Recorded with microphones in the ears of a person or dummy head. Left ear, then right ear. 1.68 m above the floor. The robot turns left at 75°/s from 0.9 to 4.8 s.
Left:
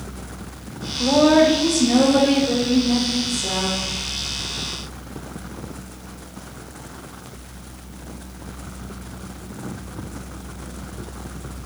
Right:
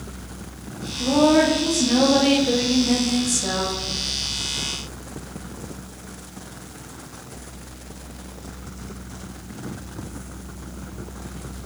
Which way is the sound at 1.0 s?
65° left.